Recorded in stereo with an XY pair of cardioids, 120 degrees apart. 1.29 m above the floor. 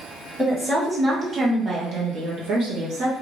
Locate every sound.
0.4 s a woman speaking: 10° right, 1.4 m; by 3.1 s 80° right, 1.3 m